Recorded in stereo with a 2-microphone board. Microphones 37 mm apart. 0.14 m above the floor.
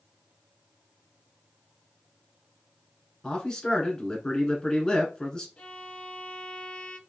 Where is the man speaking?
20° left (ahead or behind), 1.3 m.